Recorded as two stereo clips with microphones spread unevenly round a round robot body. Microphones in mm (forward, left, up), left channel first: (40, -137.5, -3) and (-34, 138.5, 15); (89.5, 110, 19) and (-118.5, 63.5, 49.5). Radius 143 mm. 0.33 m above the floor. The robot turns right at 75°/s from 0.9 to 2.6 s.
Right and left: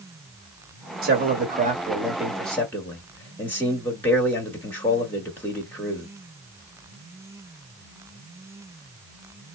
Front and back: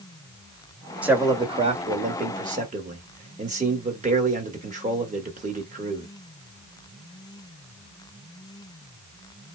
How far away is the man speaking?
About 1.5 m.